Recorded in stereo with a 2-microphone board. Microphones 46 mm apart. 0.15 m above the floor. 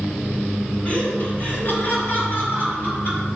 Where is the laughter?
25° left (ahead or behind), 1.9 m; by 3.3 s 50° left (ahead or behind), 4 m.